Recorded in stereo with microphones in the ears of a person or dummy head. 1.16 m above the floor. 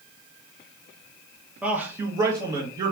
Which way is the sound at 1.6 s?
Centre (ahead or behind).